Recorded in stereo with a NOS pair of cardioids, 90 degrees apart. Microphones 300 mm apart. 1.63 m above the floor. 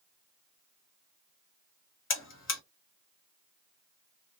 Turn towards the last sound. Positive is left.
turn(degrees=45)